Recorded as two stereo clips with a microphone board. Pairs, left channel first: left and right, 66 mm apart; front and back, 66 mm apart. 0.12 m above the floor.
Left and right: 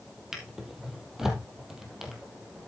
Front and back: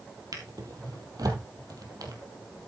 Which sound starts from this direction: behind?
A drawer, at 0.3 s.